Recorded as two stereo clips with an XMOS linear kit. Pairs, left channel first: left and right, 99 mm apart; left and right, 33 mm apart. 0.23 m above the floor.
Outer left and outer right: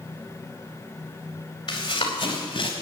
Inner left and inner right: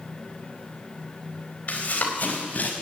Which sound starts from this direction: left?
Running footsteps, at 1.7 s.